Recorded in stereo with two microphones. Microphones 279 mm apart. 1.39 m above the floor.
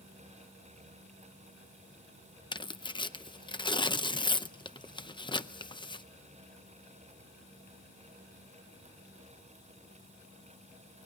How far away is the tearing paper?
About 0.6 m.